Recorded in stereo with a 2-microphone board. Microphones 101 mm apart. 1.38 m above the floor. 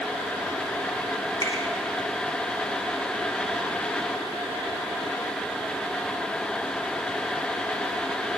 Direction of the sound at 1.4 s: 35° left (ahead or behind).